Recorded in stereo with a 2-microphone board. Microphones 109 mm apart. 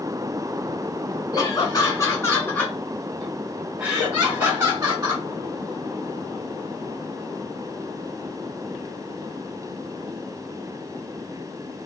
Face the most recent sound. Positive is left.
turn(degrees=-30)  # may be behind; listen again after turning